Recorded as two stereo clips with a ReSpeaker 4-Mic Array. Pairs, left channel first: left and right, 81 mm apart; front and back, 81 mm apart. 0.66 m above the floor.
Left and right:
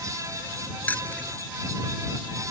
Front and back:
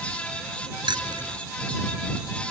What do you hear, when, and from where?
0.9 s keys jangling: 160° left